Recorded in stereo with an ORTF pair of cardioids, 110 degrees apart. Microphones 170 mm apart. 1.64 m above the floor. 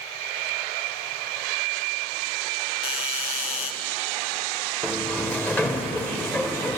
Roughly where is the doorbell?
Ahead left.